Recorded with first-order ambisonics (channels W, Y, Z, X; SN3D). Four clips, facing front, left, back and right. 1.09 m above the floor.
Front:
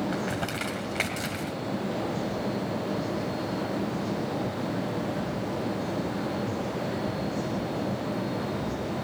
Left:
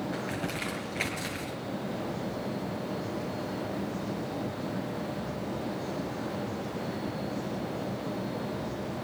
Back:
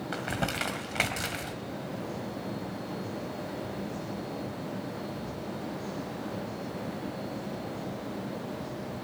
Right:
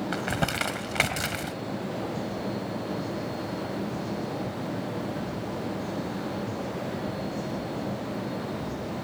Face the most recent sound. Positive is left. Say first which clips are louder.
# right 6 dB, front 2 dB
turn(degrees=-100)